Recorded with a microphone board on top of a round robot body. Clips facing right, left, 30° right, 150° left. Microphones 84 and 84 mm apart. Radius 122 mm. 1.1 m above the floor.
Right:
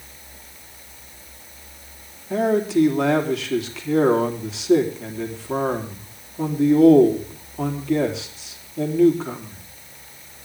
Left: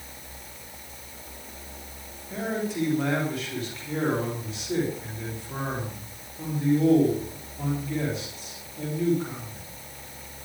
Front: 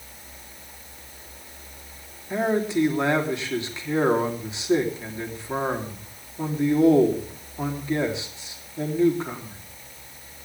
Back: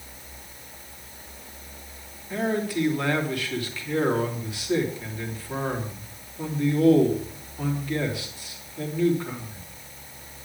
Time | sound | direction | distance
2.3 | a man speaking | 95° right | 3.5 m